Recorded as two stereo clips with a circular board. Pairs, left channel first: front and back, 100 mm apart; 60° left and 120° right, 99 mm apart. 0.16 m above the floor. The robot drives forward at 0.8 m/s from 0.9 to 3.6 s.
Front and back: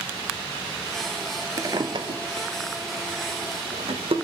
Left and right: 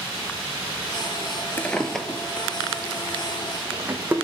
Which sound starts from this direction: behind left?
A drawer, at 1.6 s.